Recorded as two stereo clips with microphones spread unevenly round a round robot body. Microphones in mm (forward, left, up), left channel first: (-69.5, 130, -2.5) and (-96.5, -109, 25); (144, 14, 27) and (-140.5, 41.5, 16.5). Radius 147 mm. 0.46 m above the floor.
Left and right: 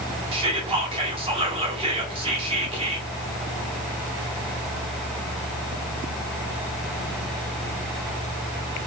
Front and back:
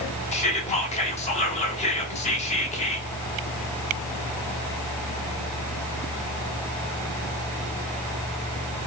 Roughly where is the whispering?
Ahead right.